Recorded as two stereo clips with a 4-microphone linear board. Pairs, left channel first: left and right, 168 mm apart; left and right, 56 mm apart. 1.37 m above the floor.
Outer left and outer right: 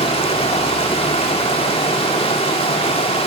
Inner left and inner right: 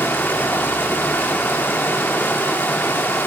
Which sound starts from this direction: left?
Running water, at 0.0 s.